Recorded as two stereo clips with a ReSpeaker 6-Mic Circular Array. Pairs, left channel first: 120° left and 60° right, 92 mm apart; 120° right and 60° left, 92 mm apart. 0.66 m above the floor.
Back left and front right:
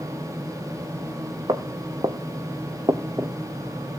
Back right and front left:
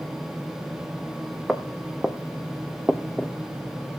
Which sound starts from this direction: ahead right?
Footsteps, at 1.5 s.